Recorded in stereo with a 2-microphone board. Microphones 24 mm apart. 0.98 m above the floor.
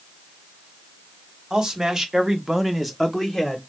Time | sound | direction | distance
1.5 | a man speaking | 25° right (ahead or behind) | 1.2 m